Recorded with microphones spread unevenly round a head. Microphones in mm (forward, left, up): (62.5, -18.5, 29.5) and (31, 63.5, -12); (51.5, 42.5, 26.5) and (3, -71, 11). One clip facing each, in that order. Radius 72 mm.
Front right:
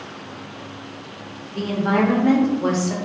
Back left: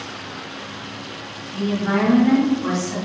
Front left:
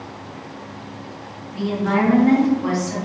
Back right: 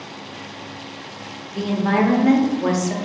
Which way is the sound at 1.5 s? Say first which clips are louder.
Even, even; 75° right.